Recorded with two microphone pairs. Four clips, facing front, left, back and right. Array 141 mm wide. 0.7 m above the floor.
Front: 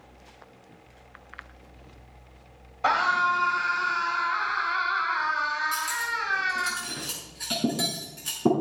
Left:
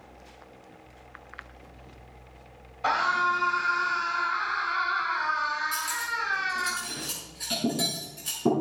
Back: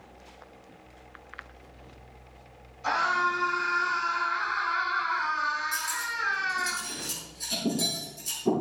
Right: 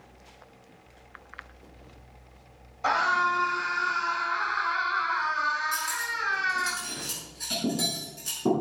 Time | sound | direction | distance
2.8 | a scream | straight ahead | 4 m
5.7 | cutlery clinking | straight ahead | 5.5 m